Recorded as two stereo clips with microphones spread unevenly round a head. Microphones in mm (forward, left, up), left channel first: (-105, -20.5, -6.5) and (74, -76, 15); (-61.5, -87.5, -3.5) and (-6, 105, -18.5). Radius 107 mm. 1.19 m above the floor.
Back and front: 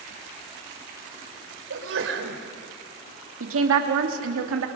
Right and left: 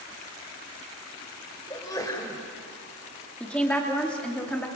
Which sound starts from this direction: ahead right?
A sneeze, at 1.7 s.